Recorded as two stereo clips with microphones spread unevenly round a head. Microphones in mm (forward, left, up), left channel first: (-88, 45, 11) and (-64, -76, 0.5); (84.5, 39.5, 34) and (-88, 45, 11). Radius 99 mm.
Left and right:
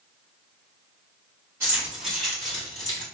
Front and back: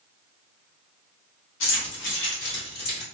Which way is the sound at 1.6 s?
5° right.